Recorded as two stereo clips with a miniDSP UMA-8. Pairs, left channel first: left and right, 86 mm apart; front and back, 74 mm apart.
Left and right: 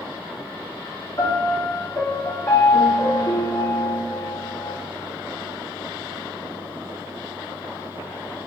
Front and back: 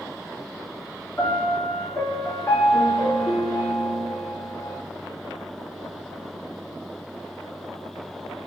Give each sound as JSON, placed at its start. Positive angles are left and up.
{"t": 1.2, "sound": "a piano", "azimuth_deg": 45, "distance_m": 3.5}